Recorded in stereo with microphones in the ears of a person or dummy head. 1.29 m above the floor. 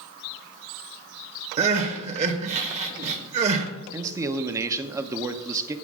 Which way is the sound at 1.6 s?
40° right (ahead or behind).